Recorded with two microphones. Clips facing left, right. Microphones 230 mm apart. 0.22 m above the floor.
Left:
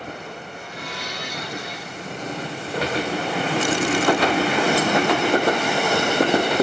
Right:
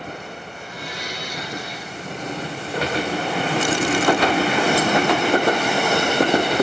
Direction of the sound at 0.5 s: 65° left (ahead or behind).